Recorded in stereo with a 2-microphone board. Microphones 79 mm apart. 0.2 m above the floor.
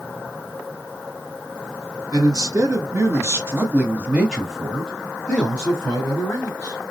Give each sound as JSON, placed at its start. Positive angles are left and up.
{"t": 2.1, "sound": "a man speaking", "side_deg": -50, "distance_m": 1.7}